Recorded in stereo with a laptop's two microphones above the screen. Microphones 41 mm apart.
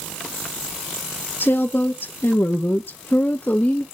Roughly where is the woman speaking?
Left.